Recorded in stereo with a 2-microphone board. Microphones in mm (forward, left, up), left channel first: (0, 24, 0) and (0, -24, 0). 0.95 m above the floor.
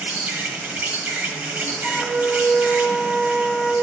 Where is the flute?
20° right (ahead or behind), 4 m.